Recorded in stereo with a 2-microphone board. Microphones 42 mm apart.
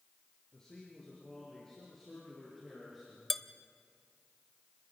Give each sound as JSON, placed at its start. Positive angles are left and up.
{"t": 0.5, "sound": "a man speaking", "side_deg": 20, "distance_m": 5.0}
{"t": 3.3, "sound": "dishes clattering", "side_deg": 5, "distance_m": 0.8}